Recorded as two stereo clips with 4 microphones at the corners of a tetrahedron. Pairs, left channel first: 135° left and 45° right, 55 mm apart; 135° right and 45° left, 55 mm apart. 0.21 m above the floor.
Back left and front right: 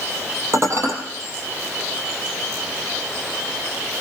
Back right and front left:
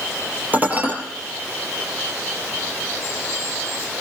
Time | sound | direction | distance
0.5 | dishes clattering | 15° right | 4 m